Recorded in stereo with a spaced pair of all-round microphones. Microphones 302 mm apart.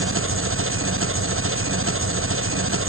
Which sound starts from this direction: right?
An engine running, at 0.0 s.